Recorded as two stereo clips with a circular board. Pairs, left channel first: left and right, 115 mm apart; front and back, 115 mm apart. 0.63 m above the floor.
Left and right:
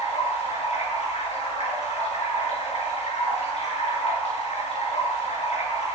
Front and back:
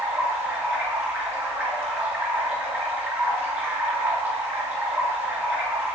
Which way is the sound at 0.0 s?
110° left.